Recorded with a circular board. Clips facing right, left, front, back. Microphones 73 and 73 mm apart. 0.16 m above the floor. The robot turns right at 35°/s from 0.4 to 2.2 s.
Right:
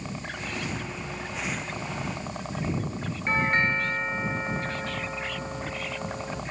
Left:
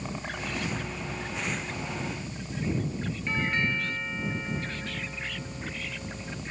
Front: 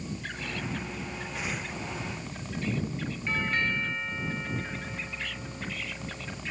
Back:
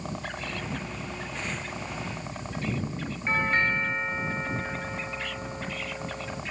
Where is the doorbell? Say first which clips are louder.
Right 5 dB, back 5 dB; 130° right.